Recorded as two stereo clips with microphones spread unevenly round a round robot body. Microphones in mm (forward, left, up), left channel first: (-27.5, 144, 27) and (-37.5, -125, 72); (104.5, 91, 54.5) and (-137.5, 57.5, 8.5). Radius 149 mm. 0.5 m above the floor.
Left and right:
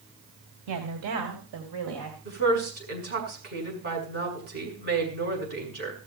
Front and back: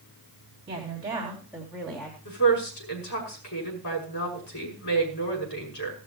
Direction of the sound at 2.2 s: 30° right.